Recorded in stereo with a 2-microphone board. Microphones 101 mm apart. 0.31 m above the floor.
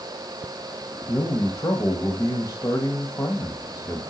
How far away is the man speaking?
About 1.3 m.